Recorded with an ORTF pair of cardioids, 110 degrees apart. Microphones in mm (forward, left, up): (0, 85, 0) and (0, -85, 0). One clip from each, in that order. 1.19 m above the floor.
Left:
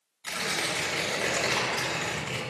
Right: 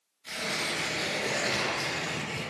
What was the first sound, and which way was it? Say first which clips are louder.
Tearing paper: left 2 dB; 70° left.